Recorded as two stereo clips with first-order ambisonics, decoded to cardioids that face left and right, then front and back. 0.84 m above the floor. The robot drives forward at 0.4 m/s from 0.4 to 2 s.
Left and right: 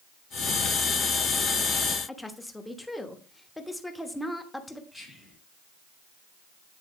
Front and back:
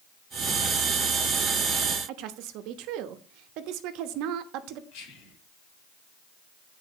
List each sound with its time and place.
2.1 s a woman speaking: 175° left, 1.1 m
4.9 s whispering: 5° left, 3 m